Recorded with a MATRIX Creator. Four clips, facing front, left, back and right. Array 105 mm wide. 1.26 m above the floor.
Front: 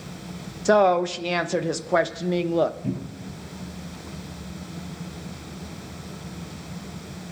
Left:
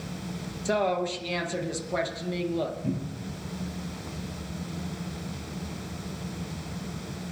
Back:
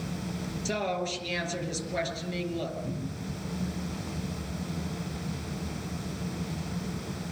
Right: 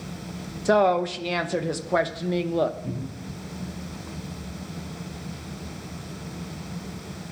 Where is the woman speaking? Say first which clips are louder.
Right 6 dB, front 14 dB; 30° right, 1.0 m.